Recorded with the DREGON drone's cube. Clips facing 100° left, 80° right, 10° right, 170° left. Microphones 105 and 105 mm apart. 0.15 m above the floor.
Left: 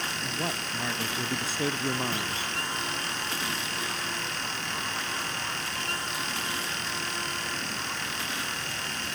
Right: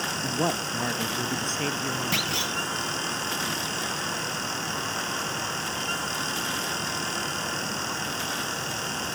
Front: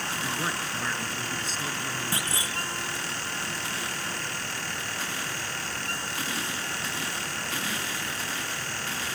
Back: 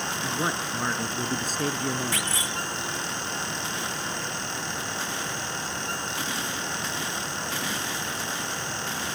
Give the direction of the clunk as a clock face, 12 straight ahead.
2 o'clock.